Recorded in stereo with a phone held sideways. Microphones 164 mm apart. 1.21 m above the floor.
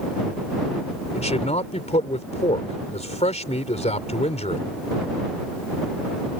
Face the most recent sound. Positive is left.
turn(degrees=45)  # may be behind; listen again after turning